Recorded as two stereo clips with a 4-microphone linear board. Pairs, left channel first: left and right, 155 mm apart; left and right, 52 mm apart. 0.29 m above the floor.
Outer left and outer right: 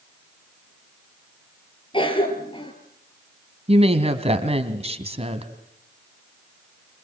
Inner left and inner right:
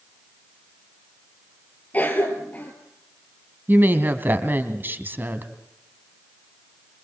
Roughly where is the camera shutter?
I don't hear a camera shutter.